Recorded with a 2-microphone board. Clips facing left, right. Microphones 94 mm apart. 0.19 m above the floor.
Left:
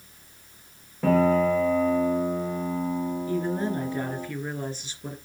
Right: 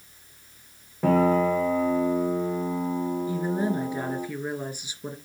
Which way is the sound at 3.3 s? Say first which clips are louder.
Left 1 dB; 15° right (ahead or behind).